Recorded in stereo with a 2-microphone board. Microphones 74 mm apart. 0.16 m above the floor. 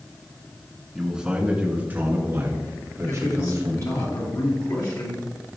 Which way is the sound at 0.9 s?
5° right (ahead or behind).